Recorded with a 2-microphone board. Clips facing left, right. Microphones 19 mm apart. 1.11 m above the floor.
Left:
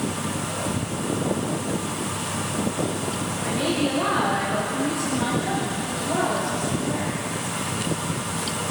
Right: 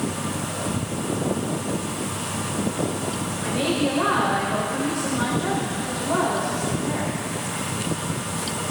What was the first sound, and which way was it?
A woman speaking, 40° right (ahead or behind).